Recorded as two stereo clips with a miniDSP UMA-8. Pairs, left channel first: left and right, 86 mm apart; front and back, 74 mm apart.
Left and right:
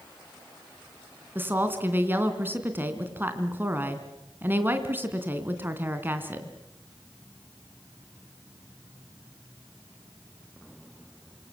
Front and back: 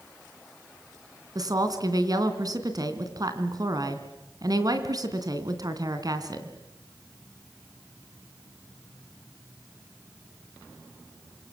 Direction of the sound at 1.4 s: 155° right.